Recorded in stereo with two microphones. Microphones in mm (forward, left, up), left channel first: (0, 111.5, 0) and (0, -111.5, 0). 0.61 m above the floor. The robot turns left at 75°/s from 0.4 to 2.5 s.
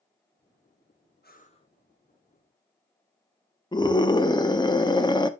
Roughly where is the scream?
Centre.